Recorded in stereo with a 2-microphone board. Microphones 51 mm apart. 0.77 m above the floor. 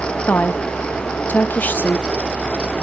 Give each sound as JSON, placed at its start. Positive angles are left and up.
{"t": 0.3, "sound": "a woman speaking", "side_deg": 35, "distance_m": 0.8}